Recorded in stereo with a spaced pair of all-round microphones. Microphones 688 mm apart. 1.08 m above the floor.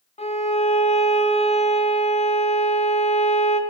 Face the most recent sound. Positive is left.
turn(degrees=10)  # may be behind; listen again after turning